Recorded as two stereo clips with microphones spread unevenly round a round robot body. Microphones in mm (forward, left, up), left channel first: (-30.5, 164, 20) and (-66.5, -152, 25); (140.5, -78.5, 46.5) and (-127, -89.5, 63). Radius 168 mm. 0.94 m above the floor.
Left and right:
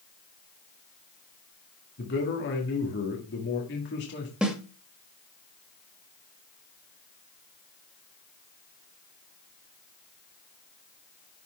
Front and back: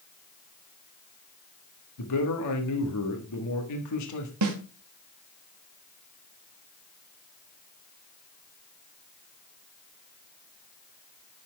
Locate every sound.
2.0 s a man speaking: 25° left, 1.5 m
4.4 s a snare drum: 175° left, 1.1 m